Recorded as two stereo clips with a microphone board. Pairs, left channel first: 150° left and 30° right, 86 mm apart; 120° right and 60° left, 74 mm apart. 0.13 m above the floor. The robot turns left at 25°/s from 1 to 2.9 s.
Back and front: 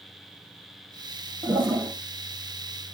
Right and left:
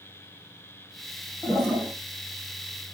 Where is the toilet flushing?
15° right, 1.4 m; by 1.9 s 25° right, 1.4 m.